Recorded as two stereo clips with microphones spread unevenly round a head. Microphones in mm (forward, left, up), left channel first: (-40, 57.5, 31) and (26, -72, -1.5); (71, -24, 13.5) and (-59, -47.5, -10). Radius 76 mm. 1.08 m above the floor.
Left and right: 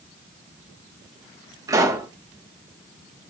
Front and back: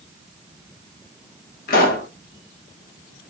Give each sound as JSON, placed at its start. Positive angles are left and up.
{"t": 1.7, "sound": "a pop", "azimuth_deg": 0, "distance_m": 1.2}